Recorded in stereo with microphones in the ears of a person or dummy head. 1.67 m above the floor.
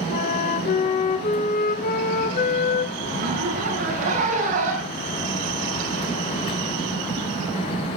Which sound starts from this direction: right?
A zipper, at 3.0 s.